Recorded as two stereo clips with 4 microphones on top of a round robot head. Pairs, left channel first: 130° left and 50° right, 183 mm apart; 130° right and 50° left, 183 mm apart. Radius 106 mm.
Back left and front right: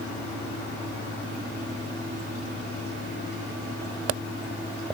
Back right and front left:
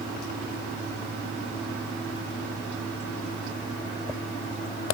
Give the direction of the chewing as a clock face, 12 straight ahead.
No chewing in this recording.